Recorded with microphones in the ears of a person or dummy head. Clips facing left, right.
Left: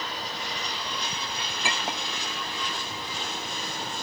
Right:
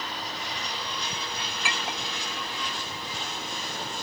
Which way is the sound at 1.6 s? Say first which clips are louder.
Left 3 dB; 25° left (ahead or behind).